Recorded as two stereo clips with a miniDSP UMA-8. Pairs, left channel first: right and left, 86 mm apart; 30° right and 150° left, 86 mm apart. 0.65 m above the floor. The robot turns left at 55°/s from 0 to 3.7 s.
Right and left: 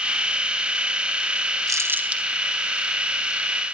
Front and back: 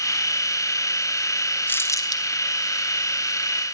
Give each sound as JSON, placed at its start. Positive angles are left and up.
{"t": 1.7, "sound": "crumpling", "azimuth_deg": 35, "distance_m": 2.5}